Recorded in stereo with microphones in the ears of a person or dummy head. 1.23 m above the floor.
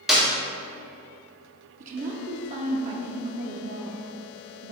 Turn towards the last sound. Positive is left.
turn(degrees=-45)  # may be behind; listen again after turning